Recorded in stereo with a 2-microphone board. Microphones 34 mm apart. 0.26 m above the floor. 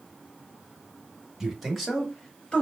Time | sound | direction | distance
1.4 | a man speaking | 5° right (ahead or behind) | 1.3 m